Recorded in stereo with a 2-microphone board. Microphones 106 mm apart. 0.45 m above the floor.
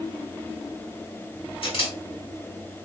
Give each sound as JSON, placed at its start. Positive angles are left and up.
{"t": 1.6, "sound": "a camera shutter", "side_deg": 60, "distance_m": 2.0}